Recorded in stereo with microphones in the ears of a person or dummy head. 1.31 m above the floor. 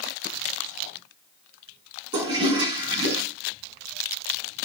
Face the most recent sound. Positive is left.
turn(degrees=-30)  # may be behind; listen again after turning